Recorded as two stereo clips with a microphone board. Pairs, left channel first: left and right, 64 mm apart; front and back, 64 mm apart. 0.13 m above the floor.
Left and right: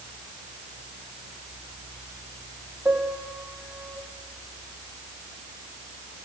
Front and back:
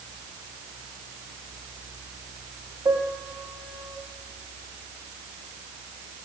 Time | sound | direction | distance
2.9 | a piano | 145° right | 5 m